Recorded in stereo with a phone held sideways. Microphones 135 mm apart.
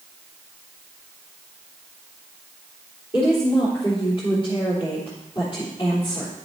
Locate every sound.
3.1 s a woman speaking: 40° left (ahead or behind), 3.5 m